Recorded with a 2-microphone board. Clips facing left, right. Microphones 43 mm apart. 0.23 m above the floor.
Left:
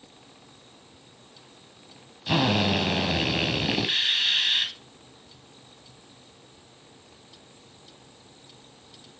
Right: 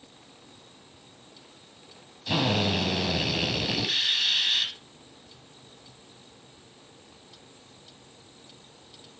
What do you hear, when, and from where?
2.3 s a drill: 20° left (ahead or behind), 1.2 m